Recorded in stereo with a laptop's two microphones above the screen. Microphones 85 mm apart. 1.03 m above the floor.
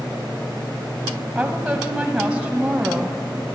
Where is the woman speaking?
5° right (ahead or behind), 0.7 m.